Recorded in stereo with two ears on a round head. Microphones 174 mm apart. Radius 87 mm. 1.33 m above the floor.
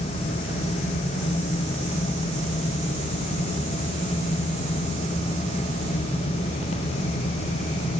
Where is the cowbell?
No cowbell in this recording.